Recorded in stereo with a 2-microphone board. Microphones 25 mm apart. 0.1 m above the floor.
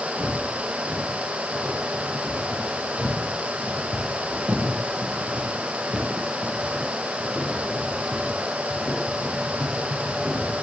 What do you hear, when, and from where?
0.2 s footsteps: 80° right, 4.5 m; by 10.5 s 10° left (ahead or behind), 4 m